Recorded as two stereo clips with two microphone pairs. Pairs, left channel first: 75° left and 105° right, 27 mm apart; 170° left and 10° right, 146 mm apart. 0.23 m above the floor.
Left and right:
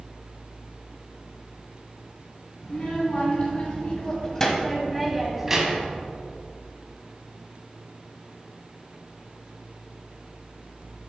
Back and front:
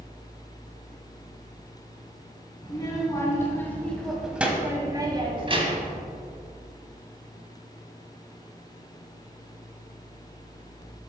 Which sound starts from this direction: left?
A child speaking, at 2.6 s.